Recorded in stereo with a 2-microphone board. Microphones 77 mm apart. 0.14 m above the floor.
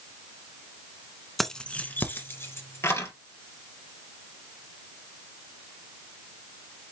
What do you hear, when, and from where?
1.4 s keys jangling: 5° left (ahead or behind), 0.7 m; by 3.1 s 40° left (ahead or behind), 1.9 m